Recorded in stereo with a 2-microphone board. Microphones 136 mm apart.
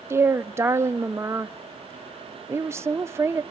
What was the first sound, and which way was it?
A woman speaking, 20° right (ahead or behind).